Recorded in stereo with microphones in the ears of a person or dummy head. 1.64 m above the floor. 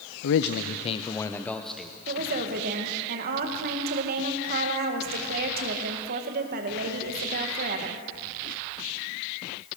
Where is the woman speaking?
50° right (ahead or behind), 2.5 m.